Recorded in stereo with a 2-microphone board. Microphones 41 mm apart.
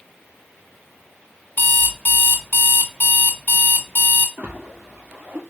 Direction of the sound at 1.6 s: 50° left (ahead or behind).